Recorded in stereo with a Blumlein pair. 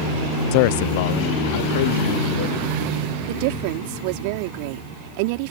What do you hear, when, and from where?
0.5 s a man speaking: 45° left; by 2.8 s 55° left
3.3 s a woman speaking: 45° right